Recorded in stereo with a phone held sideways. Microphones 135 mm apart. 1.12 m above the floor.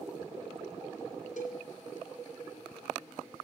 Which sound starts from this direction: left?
A cowbell, at 1.4 s.